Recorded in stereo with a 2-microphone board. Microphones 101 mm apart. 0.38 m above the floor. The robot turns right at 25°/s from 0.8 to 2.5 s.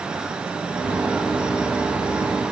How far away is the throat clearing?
I don't hear throat clearing.